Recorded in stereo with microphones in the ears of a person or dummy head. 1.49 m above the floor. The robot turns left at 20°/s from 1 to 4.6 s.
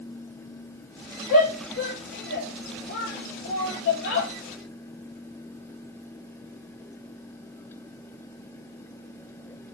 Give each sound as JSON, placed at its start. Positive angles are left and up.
{"t": 1.3, "sound": "a shout", "side_deg": 45, "distance_m": 4.5}